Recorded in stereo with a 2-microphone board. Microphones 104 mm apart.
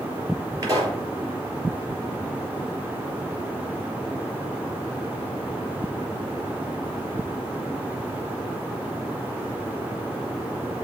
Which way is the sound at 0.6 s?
35° right (ahead or behind).